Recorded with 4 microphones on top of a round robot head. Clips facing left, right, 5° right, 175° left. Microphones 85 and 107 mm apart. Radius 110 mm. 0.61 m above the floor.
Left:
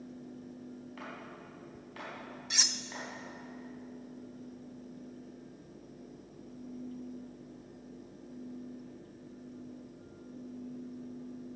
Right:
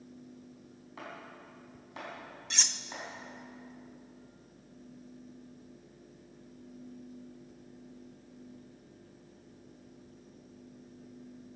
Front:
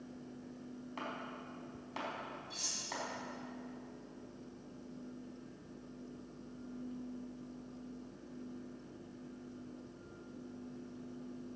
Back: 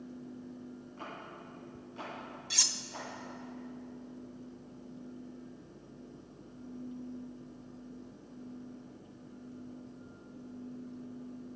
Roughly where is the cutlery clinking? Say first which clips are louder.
Even, back 4 dB; behind.